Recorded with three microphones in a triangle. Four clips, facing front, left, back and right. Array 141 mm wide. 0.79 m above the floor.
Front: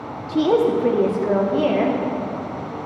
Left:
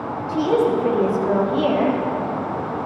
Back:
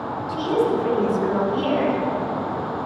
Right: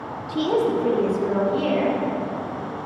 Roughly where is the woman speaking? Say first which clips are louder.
Left 3 dB, front 4 dB; ahead.